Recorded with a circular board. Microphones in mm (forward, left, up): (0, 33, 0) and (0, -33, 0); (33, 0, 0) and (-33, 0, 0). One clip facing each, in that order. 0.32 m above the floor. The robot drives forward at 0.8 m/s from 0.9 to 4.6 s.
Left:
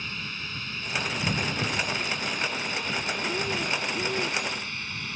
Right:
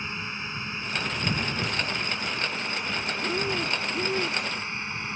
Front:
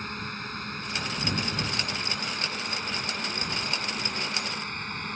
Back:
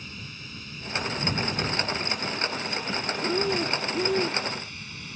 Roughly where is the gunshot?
I don't hear a gunshot.